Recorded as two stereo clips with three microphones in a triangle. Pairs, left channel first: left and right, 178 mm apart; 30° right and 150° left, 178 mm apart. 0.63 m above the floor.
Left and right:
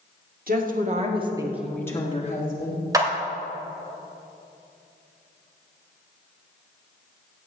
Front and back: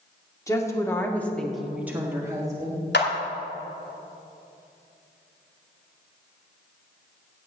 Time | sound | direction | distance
0.5 | a woman speaking | 100° right | 1.9 m
2.9 | a clap | 20° right | 2 m